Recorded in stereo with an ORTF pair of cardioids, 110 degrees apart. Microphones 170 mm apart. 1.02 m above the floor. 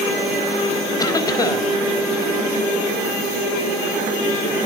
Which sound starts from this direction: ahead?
A cough, at 1.0 s.